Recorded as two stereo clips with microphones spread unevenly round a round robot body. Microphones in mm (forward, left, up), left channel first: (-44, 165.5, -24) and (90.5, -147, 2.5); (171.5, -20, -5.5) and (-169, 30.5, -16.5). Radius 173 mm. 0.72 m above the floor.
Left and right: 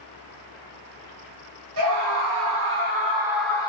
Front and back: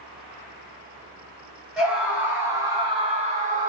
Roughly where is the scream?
Right.